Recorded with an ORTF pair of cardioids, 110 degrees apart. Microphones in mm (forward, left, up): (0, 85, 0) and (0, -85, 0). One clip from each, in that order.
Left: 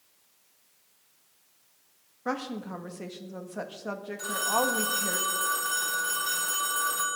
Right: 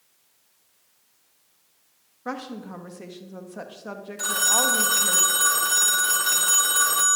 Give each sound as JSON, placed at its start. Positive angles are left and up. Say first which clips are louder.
{"t": 2.2, "sound": "a woman speaking", "louder": "left 1 dB", "azimuth_deg": 5, "distance_m": 2.0}
{"t": 4.2, "sound": "a phone ringing", "louder": "right 5 dB", "azimuth_deg": -45, "distance_m": 1.5}